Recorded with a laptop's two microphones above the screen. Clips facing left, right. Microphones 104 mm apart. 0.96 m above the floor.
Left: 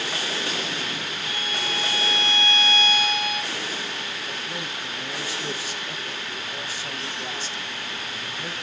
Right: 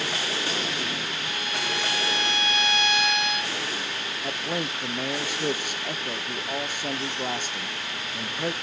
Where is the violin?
55° right (ahead or behind), 1.2 m.